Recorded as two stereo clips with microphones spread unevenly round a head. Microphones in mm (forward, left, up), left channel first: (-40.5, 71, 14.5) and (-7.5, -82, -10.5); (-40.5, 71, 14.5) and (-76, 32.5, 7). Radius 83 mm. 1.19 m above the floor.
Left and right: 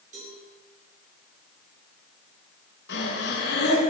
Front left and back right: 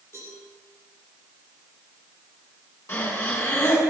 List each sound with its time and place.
0.1 s a cowbell: 25° right, 8.5 m
2.9 s breathing: 80° left, 8 m